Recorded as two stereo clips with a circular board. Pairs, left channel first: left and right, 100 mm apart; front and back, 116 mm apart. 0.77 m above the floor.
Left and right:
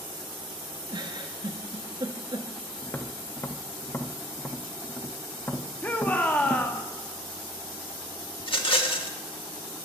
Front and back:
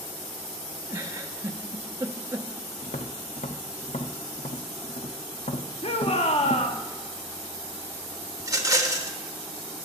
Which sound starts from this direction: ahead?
A shout, at 5.8 s.